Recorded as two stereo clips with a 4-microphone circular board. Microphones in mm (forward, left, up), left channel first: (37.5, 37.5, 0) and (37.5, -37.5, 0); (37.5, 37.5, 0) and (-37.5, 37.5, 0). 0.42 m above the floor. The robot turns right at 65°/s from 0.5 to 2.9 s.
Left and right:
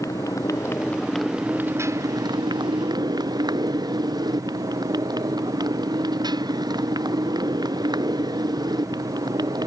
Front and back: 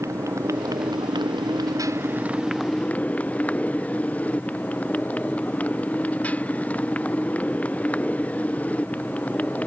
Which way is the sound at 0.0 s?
135° left.